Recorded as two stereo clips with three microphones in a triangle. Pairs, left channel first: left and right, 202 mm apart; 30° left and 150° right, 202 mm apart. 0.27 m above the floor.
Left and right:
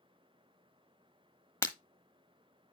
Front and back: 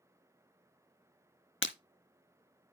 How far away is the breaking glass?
About 0.9 m.